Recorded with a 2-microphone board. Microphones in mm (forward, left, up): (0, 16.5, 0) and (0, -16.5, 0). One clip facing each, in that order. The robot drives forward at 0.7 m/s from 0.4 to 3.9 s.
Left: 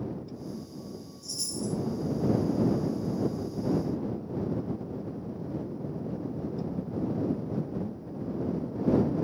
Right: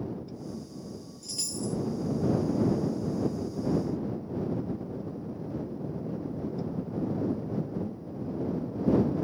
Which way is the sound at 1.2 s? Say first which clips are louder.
Even; 65° right (ahead or behind).